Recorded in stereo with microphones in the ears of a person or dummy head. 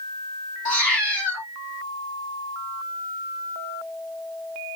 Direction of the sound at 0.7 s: 35° left (ahead or behind).